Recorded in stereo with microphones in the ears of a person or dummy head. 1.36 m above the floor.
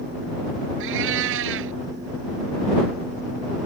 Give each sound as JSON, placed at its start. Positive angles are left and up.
{"t": 0.8, "sound": "a cat meowing", "side_deg": -70}